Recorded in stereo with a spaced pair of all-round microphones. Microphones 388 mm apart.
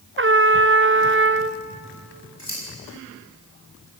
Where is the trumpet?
30° right (ahead or behind), 0.6 m.